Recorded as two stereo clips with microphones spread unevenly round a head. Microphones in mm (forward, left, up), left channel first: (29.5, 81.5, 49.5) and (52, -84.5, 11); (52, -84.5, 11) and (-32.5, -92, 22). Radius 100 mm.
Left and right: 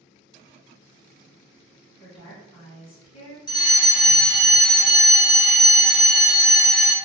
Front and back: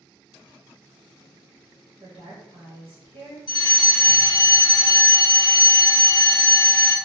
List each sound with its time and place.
2.0 s a woman speaking: 155° left, 1.5 m
3.5 s a fire alarm: 30° left, 0.7 m